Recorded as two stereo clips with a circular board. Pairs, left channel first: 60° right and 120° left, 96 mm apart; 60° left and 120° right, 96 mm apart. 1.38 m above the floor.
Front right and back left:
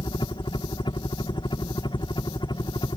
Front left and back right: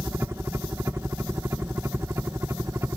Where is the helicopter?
65° right; by 3.0 s 70° right.